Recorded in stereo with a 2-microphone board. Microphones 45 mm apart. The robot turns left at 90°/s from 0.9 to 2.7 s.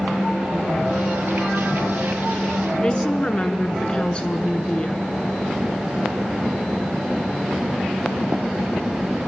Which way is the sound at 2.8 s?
25° left (ahead or behind).